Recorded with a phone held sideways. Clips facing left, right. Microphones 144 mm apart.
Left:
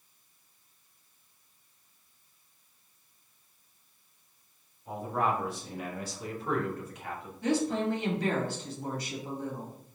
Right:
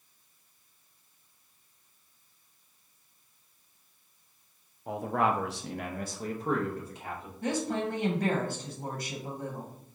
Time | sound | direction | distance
4.9 | a man speaking | 70° right (ahead or behind) | 0.6 m
7.4 | a woman speaking | 50° right (ahead or behind) | 1.1 m